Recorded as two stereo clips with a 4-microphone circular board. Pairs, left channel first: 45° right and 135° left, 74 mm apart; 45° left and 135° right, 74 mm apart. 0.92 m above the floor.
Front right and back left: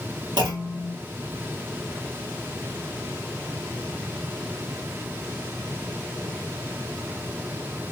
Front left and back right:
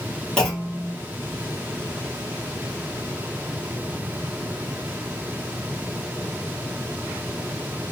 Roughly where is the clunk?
Behind left.